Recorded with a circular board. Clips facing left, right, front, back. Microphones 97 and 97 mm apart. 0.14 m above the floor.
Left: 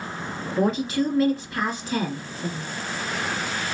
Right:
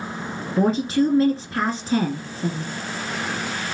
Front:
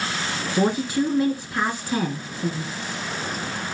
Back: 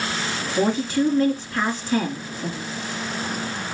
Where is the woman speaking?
60° right, 1.5 m.